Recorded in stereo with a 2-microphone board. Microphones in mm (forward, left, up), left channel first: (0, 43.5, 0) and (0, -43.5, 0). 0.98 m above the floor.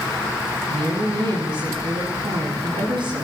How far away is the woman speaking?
About 7.5 m.